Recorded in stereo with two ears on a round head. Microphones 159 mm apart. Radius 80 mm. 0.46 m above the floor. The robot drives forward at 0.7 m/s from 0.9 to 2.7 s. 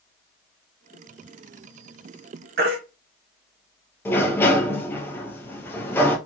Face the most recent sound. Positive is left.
turn(degrees=15)  # may be behind; listen again after turning